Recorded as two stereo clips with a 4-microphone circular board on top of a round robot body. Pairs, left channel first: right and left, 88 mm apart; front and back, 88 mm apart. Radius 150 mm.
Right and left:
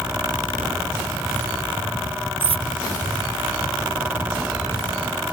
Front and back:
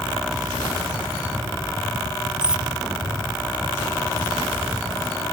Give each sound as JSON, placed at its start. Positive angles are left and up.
{"t": 2.4, "sound": "cutlery clinking", "azimuth_deg": 100}